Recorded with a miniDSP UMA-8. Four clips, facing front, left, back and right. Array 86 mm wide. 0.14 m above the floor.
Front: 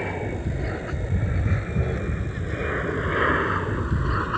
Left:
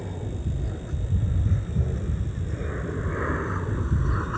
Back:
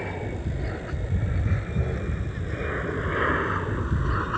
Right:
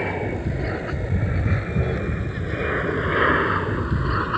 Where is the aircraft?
75° right.